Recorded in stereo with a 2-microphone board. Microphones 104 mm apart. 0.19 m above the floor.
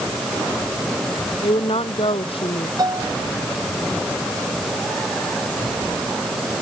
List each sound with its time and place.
1.4 s a woman speaking: 65° left (ahead or behind)
2.8 s a piano: 40° right (ahead or behind)